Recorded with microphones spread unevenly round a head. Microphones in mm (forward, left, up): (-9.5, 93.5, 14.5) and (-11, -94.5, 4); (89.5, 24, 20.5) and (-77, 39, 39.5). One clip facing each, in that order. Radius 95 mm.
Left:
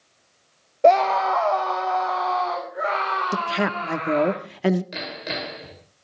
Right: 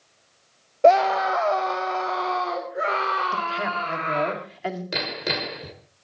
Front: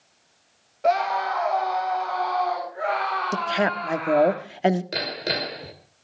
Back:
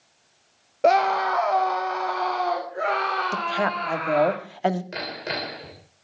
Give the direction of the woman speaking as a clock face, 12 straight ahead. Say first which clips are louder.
Left 5 dB, front 4 dB; 10 o'clock.